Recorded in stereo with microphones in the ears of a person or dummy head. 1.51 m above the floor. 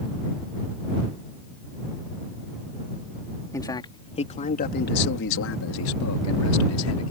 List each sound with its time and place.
3.5 s a man speaking: 15° left (ahead or behind); by 7.1 s 80° left